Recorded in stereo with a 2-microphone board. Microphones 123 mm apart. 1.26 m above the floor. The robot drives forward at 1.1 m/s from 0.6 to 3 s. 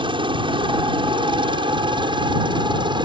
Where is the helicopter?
40° right (ahead or behind).